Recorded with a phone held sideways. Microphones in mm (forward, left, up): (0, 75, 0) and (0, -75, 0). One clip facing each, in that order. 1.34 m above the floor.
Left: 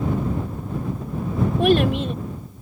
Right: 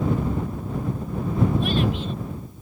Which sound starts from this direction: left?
A child speaking, at 1.6 s.